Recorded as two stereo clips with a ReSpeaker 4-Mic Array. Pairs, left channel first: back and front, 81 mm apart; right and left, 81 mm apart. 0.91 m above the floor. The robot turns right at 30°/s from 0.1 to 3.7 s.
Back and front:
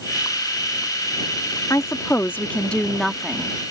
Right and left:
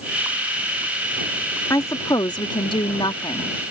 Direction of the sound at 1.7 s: 135° right.